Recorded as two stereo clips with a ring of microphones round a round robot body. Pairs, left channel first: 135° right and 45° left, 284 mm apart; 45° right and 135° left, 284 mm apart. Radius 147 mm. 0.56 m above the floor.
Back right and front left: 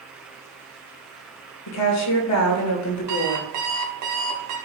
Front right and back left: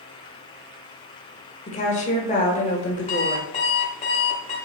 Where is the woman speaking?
110° right, 1.7 m.